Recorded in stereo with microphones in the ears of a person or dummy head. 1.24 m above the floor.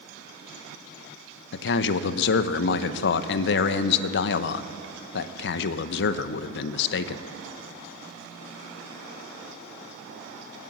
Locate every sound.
1.5 s a man speaking: 60° left (ahead or behind), 0.6 m